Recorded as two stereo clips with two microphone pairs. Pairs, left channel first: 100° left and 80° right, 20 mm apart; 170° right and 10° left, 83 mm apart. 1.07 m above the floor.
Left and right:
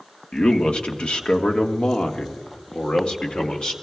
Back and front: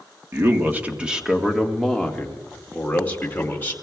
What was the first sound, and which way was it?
A man speaking, 65° left.